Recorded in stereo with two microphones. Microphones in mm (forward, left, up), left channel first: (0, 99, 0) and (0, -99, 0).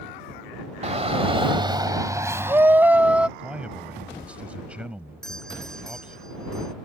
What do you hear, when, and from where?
0.8 s a shout: 35° right (ahead or behind); by 3.3 s 5° right (ahead or behind)
3.4 s a man speaking: 5° right (ahead or behind)
5.2 s a doorbell: centre (ahead or behind)